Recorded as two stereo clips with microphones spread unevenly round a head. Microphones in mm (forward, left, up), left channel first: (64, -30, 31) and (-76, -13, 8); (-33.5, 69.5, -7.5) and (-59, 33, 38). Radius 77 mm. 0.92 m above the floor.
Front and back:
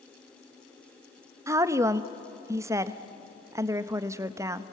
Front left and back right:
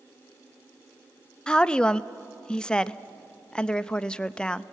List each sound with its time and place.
1.5 s a woman speaking: 105° left, 0.7 m